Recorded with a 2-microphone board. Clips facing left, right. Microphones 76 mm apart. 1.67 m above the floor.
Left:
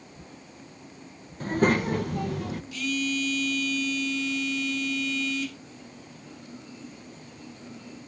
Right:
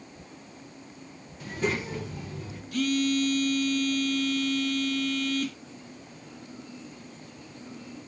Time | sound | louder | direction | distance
1.4 | a child speaking | left 7 dB | 45° left (ahead or behind) | 1.1 m
2.7 | a phone buzzing | right 5 dB | 50° right (ahead or behind) | 1.7 m